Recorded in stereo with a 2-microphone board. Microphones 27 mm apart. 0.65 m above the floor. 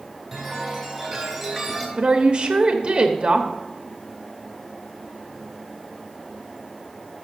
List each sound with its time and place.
0.3 s a chime: centre (ahead or behind), 3 m
2.0 s a woman speaking: 35° right (ahead or behind), 0.9 m